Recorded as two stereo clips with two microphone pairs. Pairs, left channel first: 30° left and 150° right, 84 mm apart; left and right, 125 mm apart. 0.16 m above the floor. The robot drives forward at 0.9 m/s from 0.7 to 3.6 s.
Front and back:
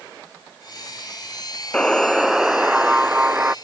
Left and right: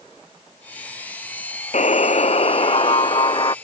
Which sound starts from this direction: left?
A buzzer, at 1.7 s.